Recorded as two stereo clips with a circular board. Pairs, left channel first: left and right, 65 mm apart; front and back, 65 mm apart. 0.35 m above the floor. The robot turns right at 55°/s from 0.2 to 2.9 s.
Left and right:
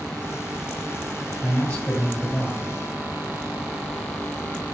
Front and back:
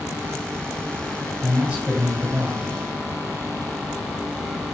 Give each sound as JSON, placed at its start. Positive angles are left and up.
{"t": 1.4, "sound": "a man speaking", "azimuth_deg": 120, "distance_m": 1.2}